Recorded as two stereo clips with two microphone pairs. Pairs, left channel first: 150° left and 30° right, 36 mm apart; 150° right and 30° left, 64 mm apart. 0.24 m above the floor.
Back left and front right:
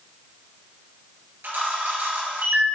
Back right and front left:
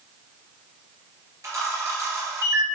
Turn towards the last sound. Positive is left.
turn(degrees=-5)